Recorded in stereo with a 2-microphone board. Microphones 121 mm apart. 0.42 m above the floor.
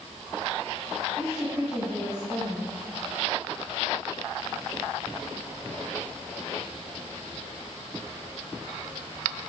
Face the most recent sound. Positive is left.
turn(degrees=-30)  # may be behind; listen again after turning